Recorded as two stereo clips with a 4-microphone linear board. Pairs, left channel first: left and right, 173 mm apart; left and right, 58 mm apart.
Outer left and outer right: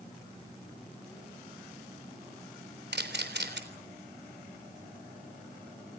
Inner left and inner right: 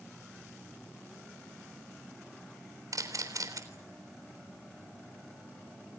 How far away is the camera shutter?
About 3.5 m.